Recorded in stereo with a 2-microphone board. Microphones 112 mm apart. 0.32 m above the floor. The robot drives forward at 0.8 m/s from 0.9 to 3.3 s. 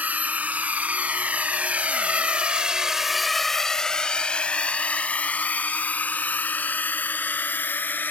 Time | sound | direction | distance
0.0 | a drone | 15° right (ahead or behind) | ?